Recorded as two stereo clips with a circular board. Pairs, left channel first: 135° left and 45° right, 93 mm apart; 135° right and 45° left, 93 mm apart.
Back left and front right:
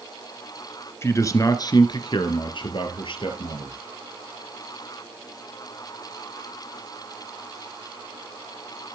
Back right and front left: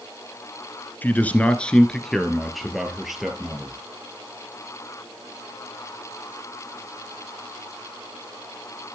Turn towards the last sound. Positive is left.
turn(degrees=125)